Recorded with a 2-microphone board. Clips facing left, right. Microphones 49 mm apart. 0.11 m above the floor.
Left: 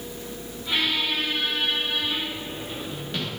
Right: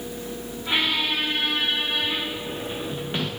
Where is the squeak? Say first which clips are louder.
Right 1 dB; 25° right (ahead or behind), 8 m.